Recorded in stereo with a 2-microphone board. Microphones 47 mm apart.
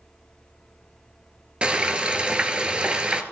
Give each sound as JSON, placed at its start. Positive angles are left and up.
{"t": 1.6, "sound": "frying", "side_deg": -25, "distance_m": 1.0}